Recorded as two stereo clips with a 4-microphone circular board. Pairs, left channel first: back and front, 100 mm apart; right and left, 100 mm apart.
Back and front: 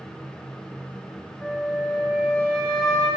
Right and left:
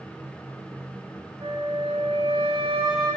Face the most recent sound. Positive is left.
turn(degrees=100)